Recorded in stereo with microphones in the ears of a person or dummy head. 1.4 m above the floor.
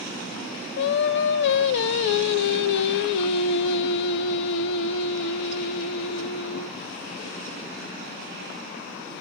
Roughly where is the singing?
Left.